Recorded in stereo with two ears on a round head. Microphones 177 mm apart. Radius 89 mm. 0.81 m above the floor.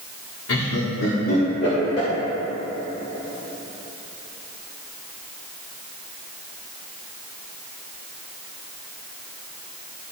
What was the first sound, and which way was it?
Laughter, 75° left (ahead or behind).